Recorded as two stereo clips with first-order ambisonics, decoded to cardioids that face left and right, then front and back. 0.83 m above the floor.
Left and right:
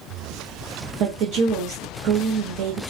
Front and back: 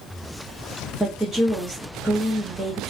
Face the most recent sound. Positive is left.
turn(degrees=-95)